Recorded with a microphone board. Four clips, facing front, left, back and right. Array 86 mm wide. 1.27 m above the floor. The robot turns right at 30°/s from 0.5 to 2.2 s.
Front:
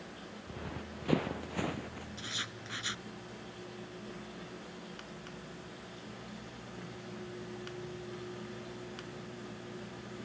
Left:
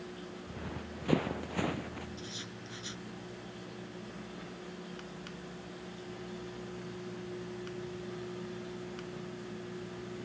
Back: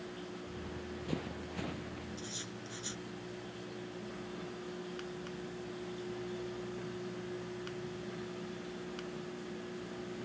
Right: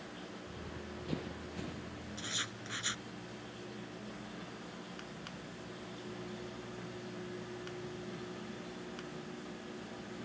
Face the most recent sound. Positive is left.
turn(degrees=-45)